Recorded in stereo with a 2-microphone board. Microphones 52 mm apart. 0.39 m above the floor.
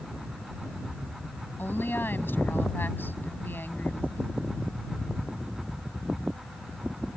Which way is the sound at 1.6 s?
40° left (ahead or behind).